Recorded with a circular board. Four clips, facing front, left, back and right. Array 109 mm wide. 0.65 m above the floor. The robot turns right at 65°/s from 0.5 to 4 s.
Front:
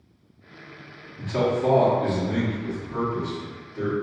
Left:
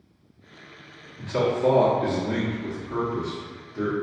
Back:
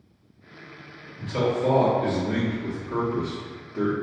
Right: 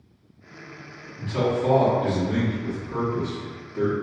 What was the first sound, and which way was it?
A man speaking, 20° left.